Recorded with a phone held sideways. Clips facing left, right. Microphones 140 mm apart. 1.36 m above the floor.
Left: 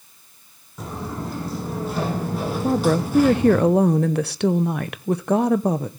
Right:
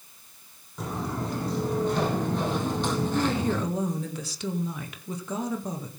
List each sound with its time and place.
0.8 s footsteps: 5° left (ahead or behind), 5 m; by 3.6 s 10° left (ahead or behind), 3 m
2.6 s a woman speaking: 65° left (ahead or behind), 0.7 m